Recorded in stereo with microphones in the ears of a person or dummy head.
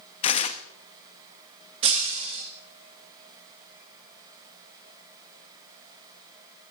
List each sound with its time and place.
0.2 s tearing paper: 30° left (ahead or behind), 0.6 m
1.8 s breaking glass: 25° right (ahead or behind), 1.6 m